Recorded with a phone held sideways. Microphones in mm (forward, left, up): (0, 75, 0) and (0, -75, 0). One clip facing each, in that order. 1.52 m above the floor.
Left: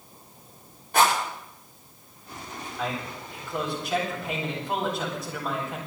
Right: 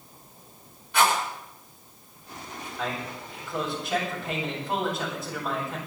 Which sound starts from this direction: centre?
A man speaking, at 2.8 s.